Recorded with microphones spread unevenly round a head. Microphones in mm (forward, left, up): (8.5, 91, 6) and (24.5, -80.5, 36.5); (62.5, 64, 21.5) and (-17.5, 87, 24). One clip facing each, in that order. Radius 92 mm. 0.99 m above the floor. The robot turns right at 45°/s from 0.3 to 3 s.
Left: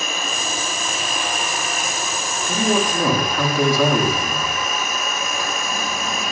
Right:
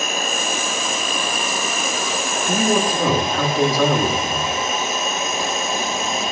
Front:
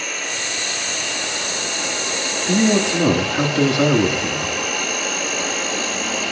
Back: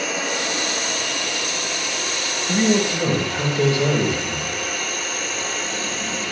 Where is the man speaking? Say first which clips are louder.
Right 1 dB, front 2 dB; 10° right, 1.8 m; by 4.5 s 15° left, 1.8 m.